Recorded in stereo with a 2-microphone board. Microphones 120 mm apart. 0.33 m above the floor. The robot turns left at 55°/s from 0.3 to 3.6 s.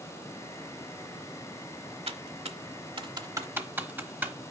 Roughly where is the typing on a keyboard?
Right.